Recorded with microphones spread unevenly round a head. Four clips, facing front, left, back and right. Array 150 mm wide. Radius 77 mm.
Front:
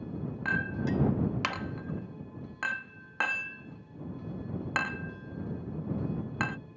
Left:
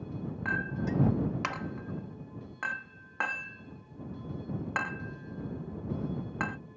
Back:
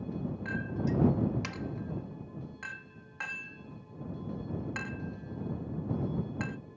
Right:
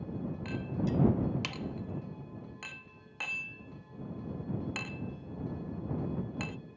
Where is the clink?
35° left.